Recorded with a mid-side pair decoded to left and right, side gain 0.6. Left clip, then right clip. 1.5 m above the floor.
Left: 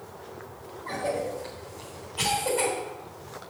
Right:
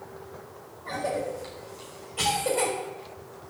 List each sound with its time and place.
0.8 s a cough: 20° right, 6 m